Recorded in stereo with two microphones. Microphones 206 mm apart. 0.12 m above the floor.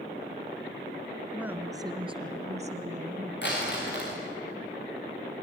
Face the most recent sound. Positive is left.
turn(degrees=65)  # may be behind; listen again after turning